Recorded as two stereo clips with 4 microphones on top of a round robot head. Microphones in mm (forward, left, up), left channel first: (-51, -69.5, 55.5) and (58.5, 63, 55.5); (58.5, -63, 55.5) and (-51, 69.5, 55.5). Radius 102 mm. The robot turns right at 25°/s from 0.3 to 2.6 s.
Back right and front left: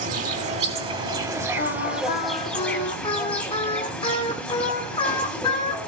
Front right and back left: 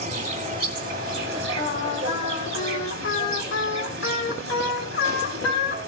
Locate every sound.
0.0 s an insect: 90° left, 2 m; by 5.9 s 145° left, 2 m
1.6 s singing: 95° right, 2.5 m; by 5.8 s 70° right, 2.5 m